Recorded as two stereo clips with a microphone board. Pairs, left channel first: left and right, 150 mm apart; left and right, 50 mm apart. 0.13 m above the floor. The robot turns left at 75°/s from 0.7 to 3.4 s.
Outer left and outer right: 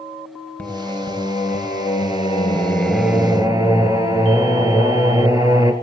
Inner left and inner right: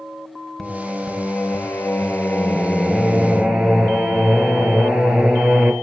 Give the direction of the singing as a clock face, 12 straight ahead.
6 o'clock.